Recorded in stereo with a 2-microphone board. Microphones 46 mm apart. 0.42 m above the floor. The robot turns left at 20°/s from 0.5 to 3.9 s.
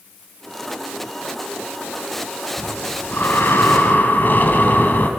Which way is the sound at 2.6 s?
75° left (ahead or behind).